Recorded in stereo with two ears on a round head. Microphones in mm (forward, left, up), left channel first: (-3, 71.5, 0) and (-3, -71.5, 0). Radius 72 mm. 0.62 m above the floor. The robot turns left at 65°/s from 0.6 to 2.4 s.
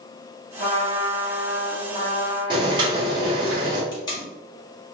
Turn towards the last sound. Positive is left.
turn(degrees=25)  # may be behind; listen again after turning